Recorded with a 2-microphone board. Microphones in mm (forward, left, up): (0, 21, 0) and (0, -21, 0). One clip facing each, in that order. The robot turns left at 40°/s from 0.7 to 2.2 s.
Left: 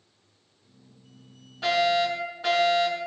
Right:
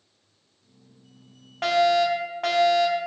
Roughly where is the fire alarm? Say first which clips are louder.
Right 3 dB; right.